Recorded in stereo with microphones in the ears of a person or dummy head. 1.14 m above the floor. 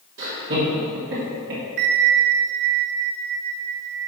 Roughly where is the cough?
I don't hear a cough.